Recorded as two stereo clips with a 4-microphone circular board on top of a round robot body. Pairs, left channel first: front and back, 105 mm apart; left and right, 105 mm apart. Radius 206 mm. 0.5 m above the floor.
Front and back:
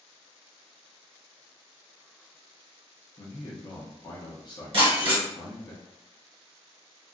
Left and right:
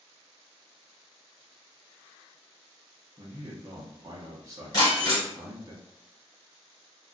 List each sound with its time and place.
3.2 s a man speaking: 40° right, 0.9 m
4.7 s breaking glass: 145° left, 1.4 m